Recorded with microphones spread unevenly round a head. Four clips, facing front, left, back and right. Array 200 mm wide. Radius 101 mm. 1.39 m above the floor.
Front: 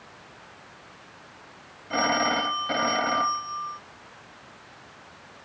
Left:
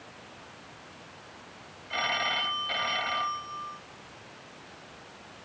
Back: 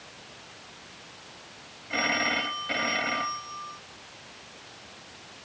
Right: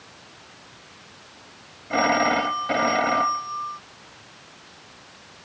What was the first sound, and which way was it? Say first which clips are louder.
A phone ringing: right 11 dB, front 5 dB; 75° right.